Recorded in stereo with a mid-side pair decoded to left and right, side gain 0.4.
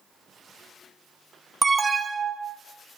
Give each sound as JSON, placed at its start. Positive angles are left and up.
{"t": 1.6, "sound": "an alarm", "azimuth_deg": -30, "distance_m": 0.9}